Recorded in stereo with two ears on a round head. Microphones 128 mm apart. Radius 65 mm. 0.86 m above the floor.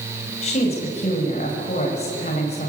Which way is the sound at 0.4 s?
45° left (ahead or behind).